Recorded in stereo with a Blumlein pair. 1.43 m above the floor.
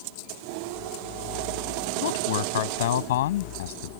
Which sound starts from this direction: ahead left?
A man speaking, at 2.0 s.